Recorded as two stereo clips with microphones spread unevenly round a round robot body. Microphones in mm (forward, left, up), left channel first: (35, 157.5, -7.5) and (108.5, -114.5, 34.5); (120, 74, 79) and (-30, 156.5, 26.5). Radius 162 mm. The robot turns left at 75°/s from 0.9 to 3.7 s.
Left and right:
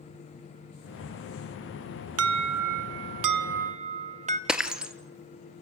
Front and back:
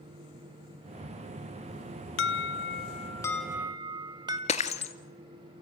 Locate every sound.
2.2 s an alarm: 30° right, 0.8 m; by 4.4 s 145° right, 0.8 m
4.5 s breaking glass: 10° left, 1.5 m